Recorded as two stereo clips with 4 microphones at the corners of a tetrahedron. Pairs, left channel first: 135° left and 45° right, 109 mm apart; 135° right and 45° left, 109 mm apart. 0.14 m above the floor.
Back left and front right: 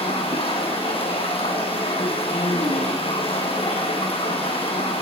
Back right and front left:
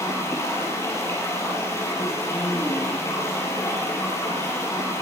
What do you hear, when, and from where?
0.0 s running water: 165° left, 3.5 m